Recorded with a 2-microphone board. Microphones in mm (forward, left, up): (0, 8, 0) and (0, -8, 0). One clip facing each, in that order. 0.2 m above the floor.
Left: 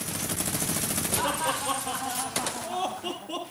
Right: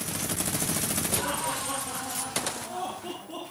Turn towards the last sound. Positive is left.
turn(degrees=35)  # may be behind; listen again after turning